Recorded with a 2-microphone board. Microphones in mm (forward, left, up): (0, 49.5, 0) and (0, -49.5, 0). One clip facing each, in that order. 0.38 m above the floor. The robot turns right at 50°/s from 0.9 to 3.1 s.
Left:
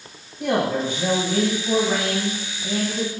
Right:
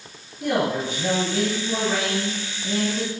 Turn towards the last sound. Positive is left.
turn(degrees=-175)